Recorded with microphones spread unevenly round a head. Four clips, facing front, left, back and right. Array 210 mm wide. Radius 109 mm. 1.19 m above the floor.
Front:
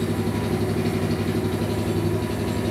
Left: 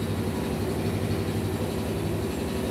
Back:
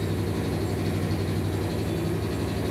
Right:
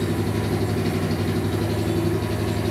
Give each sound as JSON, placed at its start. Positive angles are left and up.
{"t": 0.0, "sound": "an engine running", "azimuth_deg": -50, "distance_m": 2.5}